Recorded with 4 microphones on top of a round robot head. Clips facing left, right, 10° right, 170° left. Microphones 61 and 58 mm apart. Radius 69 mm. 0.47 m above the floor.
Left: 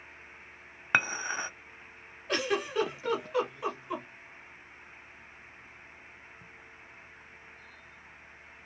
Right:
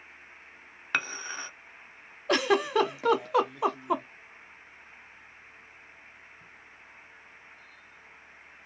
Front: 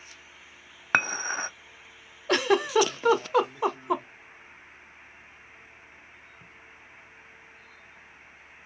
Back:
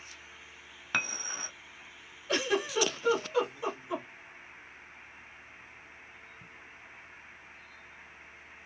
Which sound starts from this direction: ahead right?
A giggle, at 2.3 s.